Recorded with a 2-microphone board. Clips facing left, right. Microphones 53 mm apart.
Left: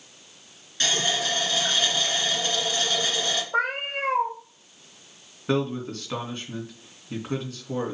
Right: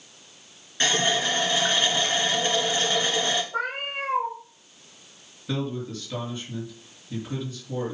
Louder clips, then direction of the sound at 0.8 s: Right 3 dB; 25° right (ahead or behind).